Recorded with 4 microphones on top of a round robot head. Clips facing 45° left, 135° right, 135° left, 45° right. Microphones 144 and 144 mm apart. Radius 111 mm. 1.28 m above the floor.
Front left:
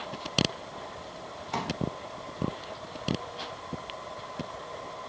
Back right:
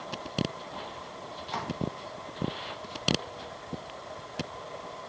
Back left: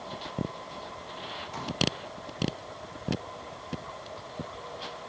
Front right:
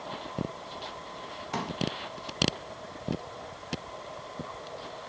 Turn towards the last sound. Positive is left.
turn(degrees=-25)